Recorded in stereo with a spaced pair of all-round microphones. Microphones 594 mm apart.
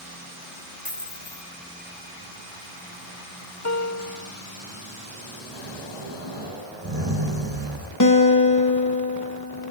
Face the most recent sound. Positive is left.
turn(degrees=30)  # may be behind; listen again after turning